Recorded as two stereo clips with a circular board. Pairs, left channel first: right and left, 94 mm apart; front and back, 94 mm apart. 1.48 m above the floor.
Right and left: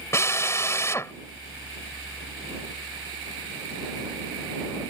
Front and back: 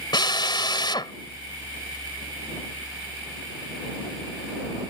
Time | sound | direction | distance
0.1 | a drill | 30° right | ?